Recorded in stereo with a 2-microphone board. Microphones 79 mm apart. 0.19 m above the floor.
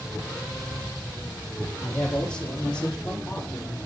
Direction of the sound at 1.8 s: 10° left (ahead or behind).